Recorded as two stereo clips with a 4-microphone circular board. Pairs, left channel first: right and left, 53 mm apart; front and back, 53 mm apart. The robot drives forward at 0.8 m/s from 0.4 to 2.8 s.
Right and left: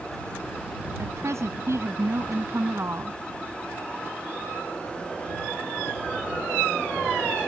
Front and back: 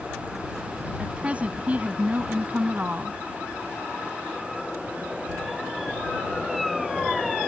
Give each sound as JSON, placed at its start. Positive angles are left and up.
{"t": 1.0, "sound": "a woman speaking", "azimuth_deg": 110}